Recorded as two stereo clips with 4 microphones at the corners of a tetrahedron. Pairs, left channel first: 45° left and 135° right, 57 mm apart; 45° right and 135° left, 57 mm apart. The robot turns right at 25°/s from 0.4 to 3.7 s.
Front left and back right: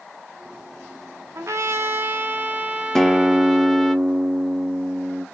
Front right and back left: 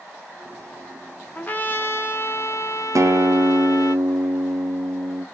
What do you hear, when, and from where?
1.4 s a trumpet: 105° right, 0.7 m; by 4.0 s 45° right, 0.7 m
3.0 s a guitar: 125° left, 0.5 m; by 5.2 s 145° left, 0.5 m